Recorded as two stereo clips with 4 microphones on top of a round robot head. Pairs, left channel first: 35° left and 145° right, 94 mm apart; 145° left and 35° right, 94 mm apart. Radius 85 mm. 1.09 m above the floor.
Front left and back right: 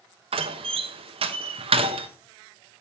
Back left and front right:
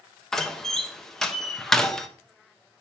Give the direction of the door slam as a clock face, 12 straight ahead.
4 o'clock.